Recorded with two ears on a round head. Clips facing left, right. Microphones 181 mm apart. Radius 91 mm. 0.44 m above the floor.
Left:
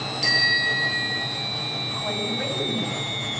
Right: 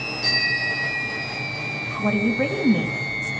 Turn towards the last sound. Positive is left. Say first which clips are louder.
# right 9 dB
turn(degrees=-60)  # may be behind; listen again after turning